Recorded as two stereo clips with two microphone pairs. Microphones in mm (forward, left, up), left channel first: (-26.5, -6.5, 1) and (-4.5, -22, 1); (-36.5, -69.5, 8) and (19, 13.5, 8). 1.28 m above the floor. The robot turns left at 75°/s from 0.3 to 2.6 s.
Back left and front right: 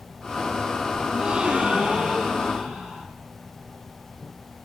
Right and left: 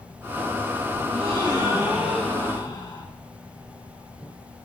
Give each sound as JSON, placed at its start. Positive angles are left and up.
{"t": 1.1, "sound": "a gasp", "azimuth_deg": 45, "distance_m": 9.0}